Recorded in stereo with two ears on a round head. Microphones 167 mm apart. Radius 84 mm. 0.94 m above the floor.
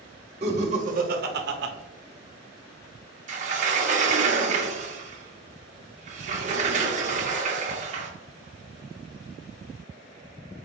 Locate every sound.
0.4 s laughter: 35° right (ahead or behind), 1.4 m; by 1.7 s 65° right (ahead or behind), 0.8 m
3.3 s a sliding door: 40° right (ahead or behind), 0.9 m